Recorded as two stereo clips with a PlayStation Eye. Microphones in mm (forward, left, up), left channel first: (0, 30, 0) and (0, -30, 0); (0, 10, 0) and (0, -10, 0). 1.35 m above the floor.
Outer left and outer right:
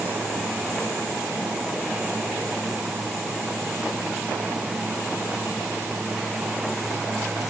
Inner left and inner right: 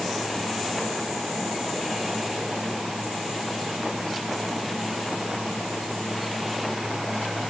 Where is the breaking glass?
I don't hear breaking glass.